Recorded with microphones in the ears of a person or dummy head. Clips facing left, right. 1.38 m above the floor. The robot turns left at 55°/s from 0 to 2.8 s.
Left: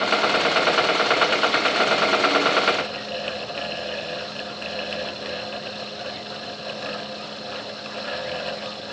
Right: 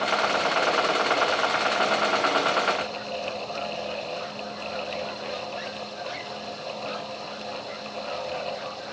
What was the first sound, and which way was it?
Only background noise.